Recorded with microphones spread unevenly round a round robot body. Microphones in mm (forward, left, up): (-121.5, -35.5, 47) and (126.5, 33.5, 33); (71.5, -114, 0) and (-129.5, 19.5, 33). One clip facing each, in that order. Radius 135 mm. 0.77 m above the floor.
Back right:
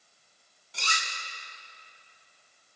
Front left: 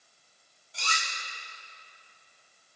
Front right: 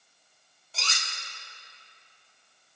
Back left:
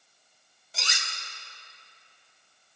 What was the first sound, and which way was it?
Cutlery clinking, 135° right.